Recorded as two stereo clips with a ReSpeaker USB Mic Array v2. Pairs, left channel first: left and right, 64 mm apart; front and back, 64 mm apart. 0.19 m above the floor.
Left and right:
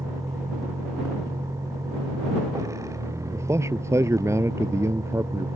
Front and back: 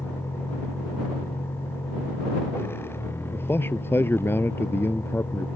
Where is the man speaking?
50° right.